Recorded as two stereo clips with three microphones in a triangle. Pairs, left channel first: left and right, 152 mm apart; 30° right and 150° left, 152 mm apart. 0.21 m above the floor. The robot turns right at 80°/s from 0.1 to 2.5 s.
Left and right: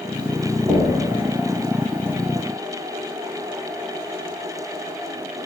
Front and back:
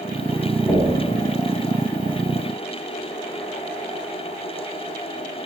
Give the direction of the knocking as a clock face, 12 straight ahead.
3 o'clock.